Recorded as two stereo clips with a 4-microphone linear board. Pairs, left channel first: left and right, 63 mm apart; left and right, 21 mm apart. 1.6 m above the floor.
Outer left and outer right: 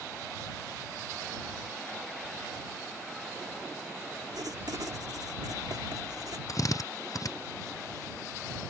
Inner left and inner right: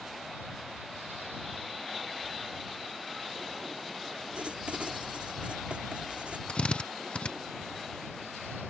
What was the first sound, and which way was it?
Writing, 80° right.